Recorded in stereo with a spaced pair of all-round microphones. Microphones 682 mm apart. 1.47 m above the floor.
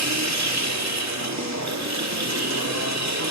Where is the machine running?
25° right (ahead or behind), 2.5 m.